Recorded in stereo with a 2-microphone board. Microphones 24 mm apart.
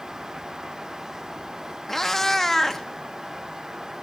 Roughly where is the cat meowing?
Centre.